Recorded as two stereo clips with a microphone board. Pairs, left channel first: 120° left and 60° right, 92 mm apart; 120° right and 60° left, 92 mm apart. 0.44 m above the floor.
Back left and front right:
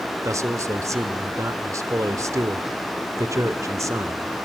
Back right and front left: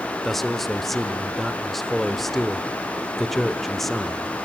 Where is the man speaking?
35° right, 1.3 m.